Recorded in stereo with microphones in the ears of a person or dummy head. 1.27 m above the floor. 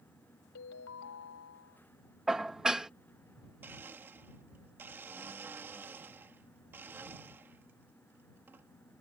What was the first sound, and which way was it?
A ringtone, 75° left (ahead or behind).